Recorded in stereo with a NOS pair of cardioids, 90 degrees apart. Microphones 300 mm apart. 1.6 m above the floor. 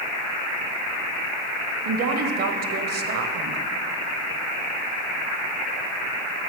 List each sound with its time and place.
1.9 s a woman speaking: 55° right, 0.8 m